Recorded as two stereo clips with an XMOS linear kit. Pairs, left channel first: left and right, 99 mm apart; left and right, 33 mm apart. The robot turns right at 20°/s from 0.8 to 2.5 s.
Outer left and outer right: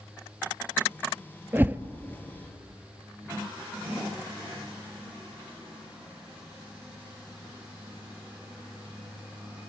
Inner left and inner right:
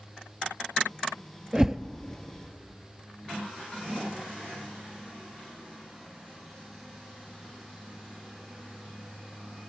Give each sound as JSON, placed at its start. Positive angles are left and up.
{"t": 1.5, "sound": "a whoosh", "side_deg": -20, "distance_m": 0.8}